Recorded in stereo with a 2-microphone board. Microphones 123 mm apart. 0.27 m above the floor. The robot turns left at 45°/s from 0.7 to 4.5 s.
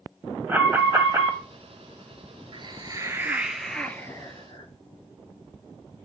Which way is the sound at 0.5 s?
25° right.